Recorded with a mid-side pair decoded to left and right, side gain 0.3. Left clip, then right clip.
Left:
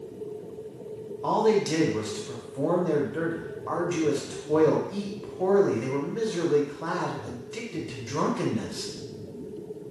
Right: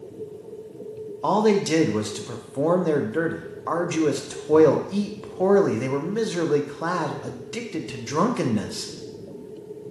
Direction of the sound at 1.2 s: 65° right.